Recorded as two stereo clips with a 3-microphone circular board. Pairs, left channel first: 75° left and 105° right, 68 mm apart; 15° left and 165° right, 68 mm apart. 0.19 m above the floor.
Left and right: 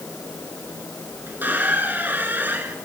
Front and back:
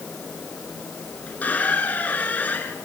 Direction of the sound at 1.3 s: 45° right.